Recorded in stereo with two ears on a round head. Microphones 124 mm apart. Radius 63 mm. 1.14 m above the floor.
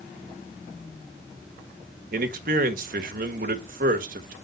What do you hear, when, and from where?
2.1 s a man speaking: 70° right (ahead or behind), 1.3 m